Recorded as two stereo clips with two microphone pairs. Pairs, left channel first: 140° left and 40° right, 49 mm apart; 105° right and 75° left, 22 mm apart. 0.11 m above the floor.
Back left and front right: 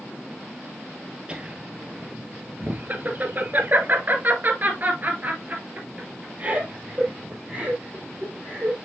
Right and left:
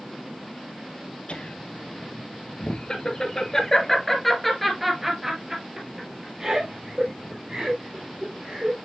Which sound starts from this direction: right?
Laughter, at 1.3 s.